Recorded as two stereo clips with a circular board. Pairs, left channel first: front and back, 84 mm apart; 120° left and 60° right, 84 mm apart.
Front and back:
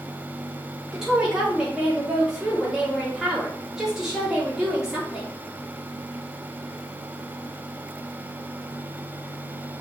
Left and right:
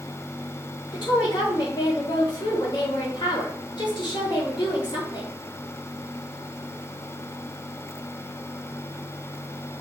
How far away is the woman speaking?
About 4 m.